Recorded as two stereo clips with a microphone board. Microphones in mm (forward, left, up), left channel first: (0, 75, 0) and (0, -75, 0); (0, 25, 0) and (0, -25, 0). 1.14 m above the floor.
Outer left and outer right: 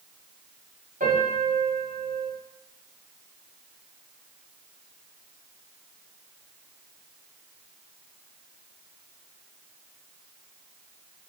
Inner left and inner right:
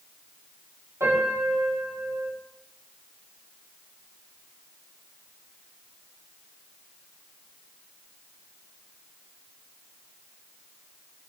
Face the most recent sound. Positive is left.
turn(degrees=-70)  # may be behind; listen again after turning